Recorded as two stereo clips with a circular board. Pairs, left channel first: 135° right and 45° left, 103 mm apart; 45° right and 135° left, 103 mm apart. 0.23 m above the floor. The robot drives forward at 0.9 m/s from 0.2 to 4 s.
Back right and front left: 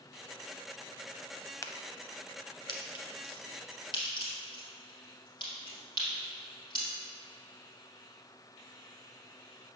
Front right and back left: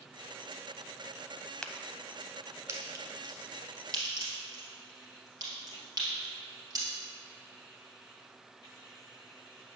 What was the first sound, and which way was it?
A crack, 120° right.